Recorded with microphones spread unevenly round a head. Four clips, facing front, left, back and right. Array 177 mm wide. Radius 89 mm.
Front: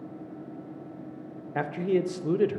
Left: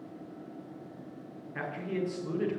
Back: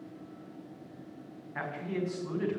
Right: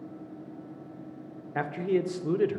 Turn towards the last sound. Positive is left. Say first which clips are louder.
# right 7 dB, front 9 dB
turn(degrees=-25)